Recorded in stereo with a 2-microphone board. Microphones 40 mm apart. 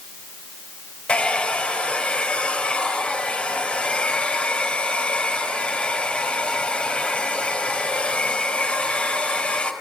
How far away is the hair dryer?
About 4 m.